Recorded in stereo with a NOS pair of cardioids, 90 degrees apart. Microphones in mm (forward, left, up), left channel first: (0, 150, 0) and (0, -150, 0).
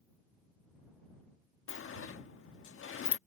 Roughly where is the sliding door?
Ahead left.